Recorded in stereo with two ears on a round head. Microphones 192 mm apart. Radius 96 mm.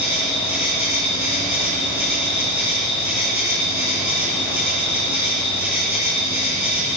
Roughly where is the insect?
Centre.